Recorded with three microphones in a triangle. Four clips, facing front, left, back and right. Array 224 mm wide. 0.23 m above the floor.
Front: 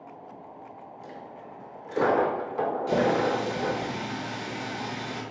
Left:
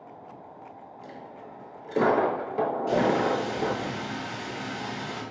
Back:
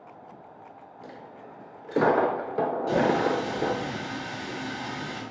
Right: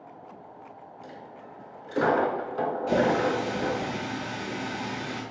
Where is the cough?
No cough in this recording.